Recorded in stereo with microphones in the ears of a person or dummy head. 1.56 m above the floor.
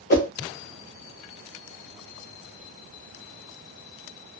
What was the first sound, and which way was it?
A whoosh, 35° left (ahead or behind).